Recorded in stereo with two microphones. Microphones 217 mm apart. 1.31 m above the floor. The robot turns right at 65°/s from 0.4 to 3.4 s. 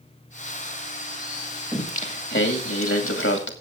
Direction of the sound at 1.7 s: 15° left.